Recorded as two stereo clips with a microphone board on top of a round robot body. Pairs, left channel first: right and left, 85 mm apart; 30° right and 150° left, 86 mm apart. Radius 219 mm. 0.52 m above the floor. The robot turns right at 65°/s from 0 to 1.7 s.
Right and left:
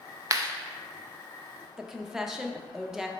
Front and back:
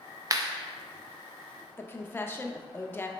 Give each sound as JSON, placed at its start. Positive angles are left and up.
{"t": 0.3, "sound": "a clap", "azimuth_deg": 120, "distance_m": 0.7}
{"t": 1.8, "sound": "a woman speaking", "azimuth_deg": 10, "distance_m": 0.6}